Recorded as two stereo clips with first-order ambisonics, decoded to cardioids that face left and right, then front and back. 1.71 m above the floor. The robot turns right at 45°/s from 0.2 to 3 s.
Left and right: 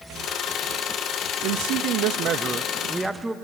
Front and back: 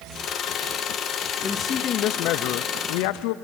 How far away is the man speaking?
About 0.8 m.